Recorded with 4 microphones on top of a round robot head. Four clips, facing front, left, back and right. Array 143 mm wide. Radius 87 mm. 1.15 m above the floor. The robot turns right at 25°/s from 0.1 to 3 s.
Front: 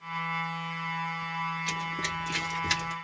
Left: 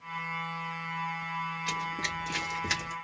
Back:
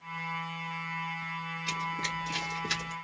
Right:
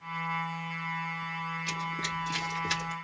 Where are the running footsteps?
45° left, 1.1 m; by 2.9 s 65° left, 1.6 m.